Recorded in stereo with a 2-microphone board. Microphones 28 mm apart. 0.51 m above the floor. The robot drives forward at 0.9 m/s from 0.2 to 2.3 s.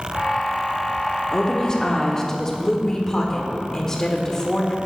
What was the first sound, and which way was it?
A woman speaking, 25° left (ahead or behind).